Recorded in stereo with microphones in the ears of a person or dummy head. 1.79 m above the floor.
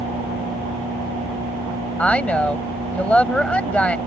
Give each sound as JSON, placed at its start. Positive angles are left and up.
{"t": 2.0, "sound": "a woman speaking", "side_deg": 5}